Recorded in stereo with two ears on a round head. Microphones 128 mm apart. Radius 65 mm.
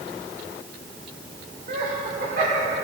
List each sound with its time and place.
1.7 s laughter: 60° right (ahead or behind), 2.5 m; by 2.7 s 55° right (ahead or behind), 1.6 m